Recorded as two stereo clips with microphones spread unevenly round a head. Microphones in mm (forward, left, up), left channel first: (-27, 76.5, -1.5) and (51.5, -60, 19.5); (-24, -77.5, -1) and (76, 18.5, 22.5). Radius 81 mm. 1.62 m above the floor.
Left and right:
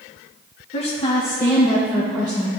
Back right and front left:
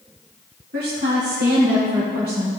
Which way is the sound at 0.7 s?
70° left.